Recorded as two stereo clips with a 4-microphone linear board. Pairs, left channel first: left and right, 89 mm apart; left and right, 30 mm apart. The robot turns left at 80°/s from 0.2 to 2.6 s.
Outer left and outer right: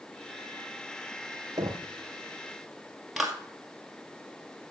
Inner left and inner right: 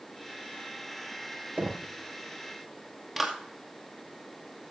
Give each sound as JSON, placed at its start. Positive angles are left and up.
{"t": 1.6, "sound": "knocking", "side_deg": -50, "distance_m": 1.9}
{"t": 3.2, "sound": "a clap", "side_deg": 0, "distance_m": 2.0}